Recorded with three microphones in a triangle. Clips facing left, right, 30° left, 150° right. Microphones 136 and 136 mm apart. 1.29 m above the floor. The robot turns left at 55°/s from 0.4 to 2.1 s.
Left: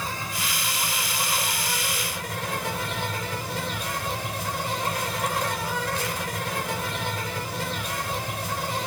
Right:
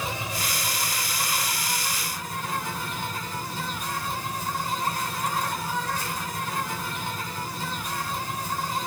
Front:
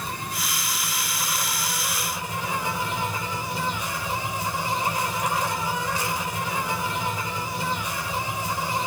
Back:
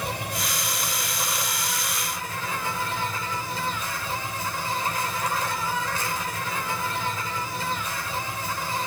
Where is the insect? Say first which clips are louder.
Right 1 dB, back 2 dB; 160° right, 4.5 m; by 8.9 s 105° left, 4.5 m.